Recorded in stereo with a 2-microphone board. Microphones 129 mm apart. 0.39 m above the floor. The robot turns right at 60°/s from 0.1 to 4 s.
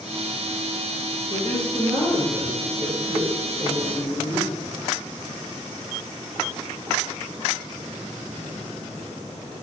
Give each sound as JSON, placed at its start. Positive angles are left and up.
{"t": 1.3, "sound": "a woman speaking", "azimuth_deg": 140, "distance_m": 1.4}